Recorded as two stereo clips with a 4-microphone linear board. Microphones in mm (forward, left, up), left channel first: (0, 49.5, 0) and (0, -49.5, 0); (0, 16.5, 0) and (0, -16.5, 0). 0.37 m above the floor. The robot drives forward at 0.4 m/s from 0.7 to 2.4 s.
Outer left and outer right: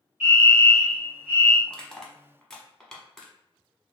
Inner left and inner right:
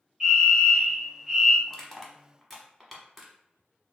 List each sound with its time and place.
0.2 s a fire alarm: 15° right (ahead or behind), 1.8 m
1.7 s crushing: 10° left (ahead or behind), 0.7 m; by 3.3 s 5° left (ahead or behind), 1.0 m